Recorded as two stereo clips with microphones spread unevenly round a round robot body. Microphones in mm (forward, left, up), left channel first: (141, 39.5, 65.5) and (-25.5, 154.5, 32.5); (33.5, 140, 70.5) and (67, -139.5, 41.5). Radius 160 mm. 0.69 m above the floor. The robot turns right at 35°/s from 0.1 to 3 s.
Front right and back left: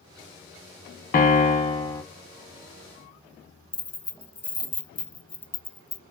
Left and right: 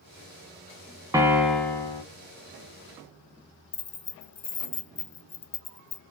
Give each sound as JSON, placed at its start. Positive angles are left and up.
{"t": 1.1, "sound": "a piano", "azimuth_deg": 0, "distance_m": 0.9}
{"t": 3.7, "sound": "keys jangling", "azimuth_deg": 35, "distance_m": 0.9}